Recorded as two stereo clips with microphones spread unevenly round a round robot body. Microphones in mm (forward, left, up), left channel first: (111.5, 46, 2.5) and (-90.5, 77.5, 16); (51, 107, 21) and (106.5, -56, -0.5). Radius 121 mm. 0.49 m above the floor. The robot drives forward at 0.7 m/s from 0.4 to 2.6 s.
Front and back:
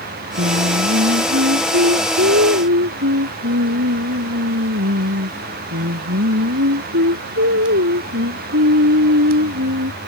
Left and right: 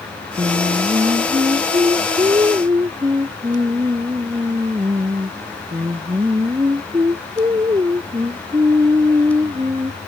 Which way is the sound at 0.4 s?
145° right.